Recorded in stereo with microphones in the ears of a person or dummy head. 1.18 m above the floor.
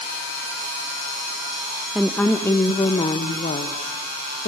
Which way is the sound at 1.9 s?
Centre (ahead or behind).